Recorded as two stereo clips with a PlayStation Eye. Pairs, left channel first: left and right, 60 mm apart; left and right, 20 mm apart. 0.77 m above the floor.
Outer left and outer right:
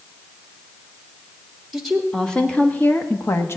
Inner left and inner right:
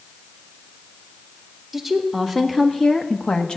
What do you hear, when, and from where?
1.7 s a woman speaking: centre (ahead or behind), 1.7 m; by 3.6 s 50° left (ahead or behind), 1.3 m